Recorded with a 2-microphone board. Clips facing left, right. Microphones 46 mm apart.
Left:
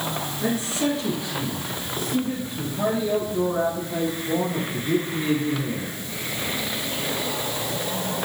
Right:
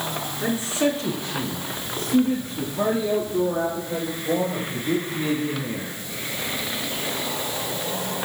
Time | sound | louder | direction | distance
0.4 | a man speaking | right 2 dB | 25° right (ahead or behind) | 4.5 m